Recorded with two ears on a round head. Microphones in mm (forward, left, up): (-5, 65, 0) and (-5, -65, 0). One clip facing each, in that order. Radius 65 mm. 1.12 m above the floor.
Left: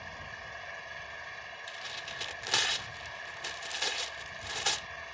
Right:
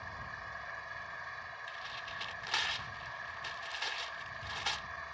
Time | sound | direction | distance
0.0 | an engine running | 25° left (ahead or behind) | ?
1.7 | tearing paper | 55° left (ahead or behind) | ?